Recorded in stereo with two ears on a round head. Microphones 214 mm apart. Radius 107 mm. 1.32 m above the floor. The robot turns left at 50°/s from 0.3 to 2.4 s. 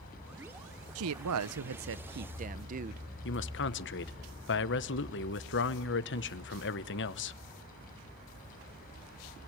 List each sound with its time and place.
0.9 s a woman speaking: 70° right, 0.9 m; by 3.0 s 145° right, 0.9 m
3.2 s a man speaking: 55° left (ahead or behind), 1.1 m